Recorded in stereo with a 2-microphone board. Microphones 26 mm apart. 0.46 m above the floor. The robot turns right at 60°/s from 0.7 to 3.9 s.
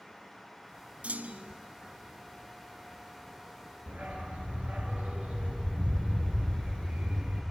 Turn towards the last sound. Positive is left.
turn(degrees=-65)  # may be behind; listen again after turning